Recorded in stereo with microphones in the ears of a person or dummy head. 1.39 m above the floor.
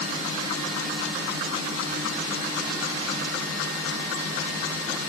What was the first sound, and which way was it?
Only background noise.